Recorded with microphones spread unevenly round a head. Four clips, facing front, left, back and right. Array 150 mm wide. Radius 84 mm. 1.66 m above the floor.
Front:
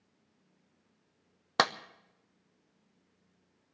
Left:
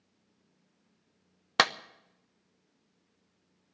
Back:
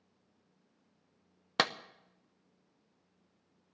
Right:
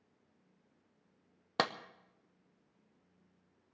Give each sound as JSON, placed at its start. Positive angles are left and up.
{"t": 1.6, "sound": "a clap", "azimuth_deg": 10, "distance_m": 0.6}